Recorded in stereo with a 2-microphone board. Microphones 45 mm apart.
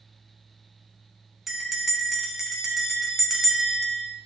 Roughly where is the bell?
Centre.